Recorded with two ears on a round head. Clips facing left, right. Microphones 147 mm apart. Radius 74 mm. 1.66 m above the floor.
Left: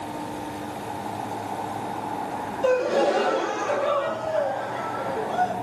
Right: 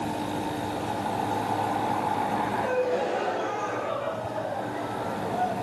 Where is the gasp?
90° left, 3.5 m.